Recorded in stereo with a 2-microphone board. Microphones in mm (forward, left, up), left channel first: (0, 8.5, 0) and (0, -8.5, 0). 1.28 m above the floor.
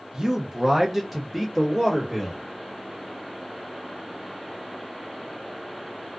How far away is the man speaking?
About 0.7 m.